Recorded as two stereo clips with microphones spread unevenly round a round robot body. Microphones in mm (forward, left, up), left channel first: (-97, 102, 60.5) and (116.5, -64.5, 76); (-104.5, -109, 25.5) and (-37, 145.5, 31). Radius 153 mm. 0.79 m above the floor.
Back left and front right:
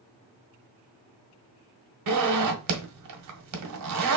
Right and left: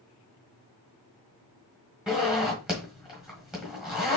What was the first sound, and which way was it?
A zipper, 15° right.